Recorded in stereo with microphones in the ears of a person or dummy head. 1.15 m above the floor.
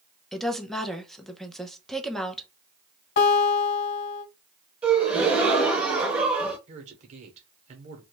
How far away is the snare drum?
I don't hear a snare drum.